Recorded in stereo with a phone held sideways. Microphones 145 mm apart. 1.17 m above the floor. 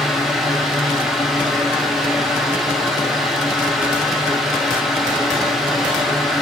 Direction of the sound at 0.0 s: Centre (ahead or behind).